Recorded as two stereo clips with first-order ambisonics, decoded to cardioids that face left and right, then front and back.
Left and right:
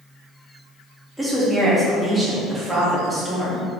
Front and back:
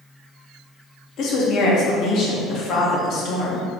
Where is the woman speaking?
Straight ahead, 0.7 m.